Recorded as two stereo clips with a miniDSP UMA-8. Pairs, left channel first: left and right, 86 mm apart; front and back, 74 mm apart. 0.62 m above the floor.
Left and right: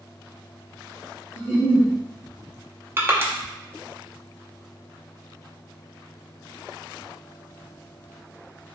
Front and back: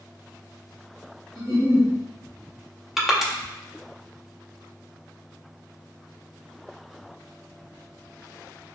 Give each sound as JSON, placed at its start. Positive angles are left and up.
{"t": 1.4, "sound": "a giggle", "azimuth_deg": -165, "distance_m": 1.5}
{"t": 3.0, "sound": "crushing", "azimuth_deg": -100, "distance_m": 0.5}